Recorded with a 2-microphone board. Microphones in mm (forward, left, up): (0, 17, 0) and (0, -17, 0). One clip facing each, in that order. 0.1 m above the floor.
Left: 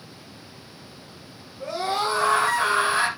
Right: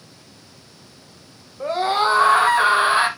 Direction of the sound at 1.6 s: 55° right (ahead or behind).